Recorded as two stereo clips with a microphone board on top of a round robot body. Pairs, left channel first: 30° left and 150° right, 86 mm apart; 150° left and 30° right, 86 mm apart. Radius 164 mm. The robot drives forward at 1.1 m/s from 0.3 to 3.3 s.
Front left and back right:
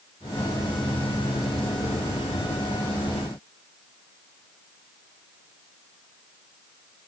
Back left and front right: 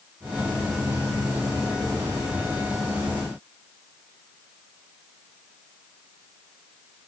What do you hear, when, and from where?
Only background noise.